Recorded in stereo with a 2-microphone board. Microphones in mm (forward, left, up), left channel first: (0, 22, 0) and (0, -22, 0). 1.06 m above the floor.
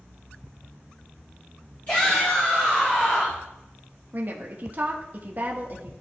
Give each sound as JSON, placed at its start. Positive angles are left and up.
{"t": 1.9, "sound": "a shout", "side_deg": 40, "distance_m": 3.0}
{"t": 4.1, "sound": "a woman speaking", "side_deg": -40, "distance_m": 1.2}